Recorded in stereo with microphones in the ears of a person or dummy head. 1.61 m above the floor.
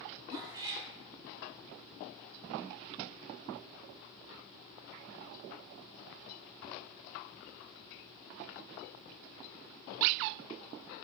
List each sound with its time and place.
0.3 s a cat meowing: 20° right (ahead or behind), 2 m